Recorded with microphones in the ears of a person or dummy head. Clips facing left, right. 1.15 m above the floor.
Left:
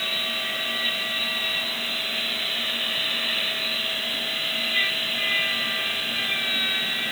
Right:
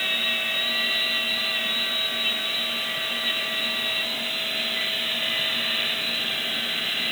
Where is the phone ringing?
I don't hear a phone ringing.